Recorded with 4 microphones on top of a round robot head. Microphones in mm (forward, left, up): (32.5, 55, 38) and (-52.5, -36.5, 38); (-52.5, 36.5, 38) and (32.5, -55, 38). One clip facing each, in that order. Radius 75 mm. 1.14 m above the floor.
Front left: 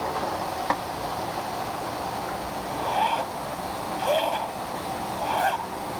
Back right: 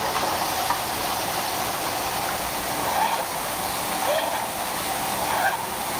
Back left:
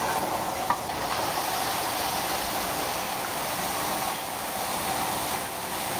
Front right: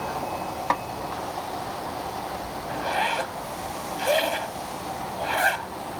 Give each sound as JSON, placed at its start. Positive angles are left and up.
{"t": 0.7, "sound": "a snare drum", "azimuth_deg": 5}
{"t": 2.7, "sound": "a zipper", "azimuth_deg": -35}